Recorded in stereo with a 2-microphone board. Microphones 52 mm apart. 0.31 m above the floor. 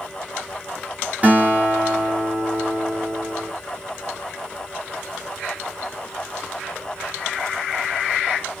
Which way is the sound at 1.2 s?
35° right (ahead or behind).